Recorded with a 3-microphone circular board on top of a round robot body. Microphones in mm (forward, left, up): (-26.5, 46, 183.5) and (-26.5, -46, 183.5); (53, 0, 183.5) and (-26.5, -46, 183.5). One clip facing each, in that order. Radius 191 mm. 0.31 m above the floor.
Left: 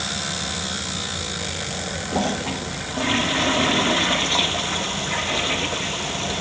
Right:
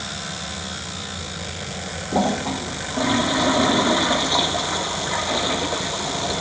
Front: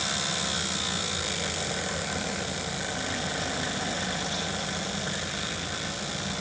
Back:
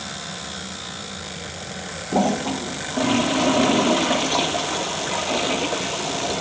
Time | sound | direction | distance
2.1 | a toilet flushing | 165° right | ?